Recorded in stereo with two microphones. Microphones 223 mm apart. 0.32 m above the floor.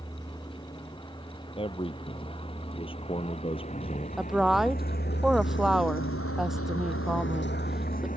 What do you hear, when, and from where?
0.0 s a vehicle: 15° left (ahead or behind); by 8.2 s 35° left (ahead or behind)
1.6 s a man speaking: 25° left (ahead or behind)
4.2 s a woman speaking: centre (ahead or behind)